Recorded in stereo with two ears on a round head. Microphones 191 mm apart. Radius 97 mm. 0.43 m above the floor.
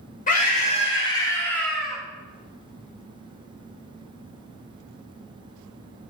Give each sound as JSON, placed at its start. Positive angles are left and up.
{"t": 0.3, "sound": "a scream", "side_deg": 40, "distance_m": 1.8}